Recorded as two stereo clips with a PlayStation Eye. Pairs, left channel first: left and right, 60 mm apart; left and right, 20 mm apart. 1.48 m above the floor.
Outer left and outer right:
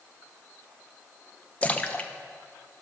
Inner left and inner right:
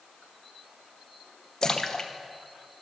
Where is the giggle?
I don't hear a giggle.